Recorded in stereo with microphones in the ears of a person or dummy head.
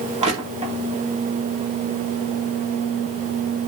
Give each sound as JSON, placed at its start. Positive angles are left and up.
{"t": 0.2, "sound": "crushing", "side_deg": -30, "distance_m": 2.5}